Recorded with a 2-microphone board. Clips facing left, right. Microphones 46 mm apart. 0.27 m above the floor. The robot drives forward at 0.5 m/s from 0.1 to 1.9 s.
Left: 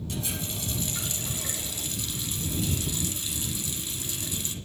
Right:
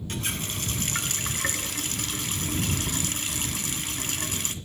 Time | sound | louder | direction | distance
0.1 | a running tap | right 3 dB | 50° right (ahead or behind) | 1.6 m